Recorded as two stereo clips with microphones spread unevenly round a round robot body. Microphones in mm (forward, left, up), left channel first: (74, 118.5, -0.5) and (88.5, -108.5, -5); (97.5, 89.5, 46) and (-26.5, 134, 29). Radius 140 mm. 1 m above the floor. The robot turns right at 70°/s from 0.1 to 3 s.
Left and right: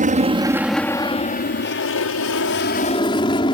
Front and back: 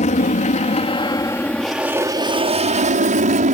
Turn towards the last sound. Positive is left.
turn(degrees=165)